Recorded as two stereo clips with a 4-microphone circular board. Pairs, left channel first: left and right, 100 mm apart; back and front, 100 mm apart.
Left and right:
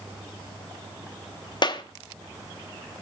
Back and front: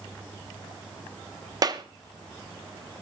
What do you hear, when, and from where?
1.6 s a clap: 50° left, 0.9 m